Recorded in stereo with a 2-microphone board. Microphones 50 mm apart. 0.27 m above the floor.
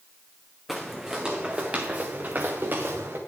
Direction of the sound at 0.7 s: Centre (ahead or behind).